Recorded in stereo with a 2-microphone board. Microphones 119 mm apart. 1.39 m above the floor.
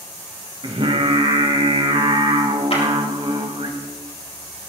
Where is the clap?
60° left (ahead or behind), 3 m.